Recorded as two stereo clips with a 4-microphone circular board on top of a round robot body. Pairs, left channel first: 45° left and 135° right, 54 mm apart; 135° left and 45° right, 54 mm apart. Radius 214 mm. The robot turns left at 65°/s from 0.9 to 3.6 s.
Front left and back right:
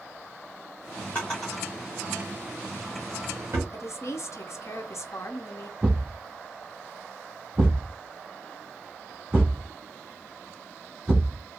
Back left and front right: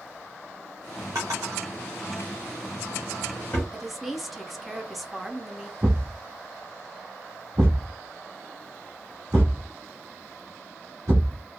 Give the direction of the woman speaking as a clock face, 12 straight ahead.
11 o'clock.